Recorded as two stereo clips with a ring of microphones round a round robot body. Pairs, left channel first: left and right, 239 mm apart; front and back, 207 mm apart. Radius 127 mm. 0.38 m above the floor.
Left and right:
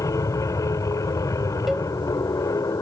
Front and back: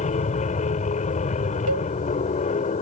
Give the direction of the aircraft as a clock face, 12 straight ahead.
11 o'clock.